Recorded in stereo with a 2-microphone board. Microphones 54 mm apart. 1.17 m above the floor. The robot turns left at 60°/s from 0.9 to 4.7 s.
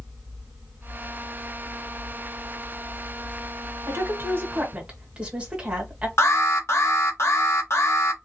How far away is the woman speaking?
About 1.7 m.